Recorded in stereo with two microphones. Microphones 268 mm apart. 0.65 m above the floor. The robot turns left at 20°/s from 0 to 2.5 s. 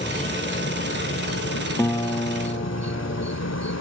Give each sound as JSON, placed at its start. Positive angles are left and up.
{"t": 0.0, "sound": "an insect", "azimuth_deg": 150}
{"t": 1.8, "sound": "a guitar", "side_deg": 10}